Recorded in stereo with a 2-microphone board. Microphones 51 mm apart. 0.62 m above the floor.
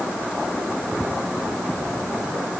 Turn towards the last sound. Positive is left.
No sound to turn to.